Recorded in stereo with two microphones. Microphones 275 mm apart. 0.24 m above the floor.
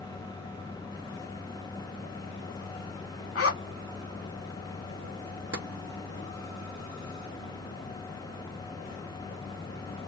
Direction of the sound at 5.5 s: 60° right (ahead or behind).